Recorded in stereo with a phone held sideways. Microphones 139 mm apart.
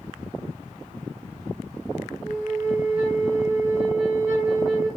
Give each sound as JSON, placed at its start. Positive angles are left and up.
{"t": 2.2, "sound": "a flute", "side_deg": -15, "distance_m": 2.0}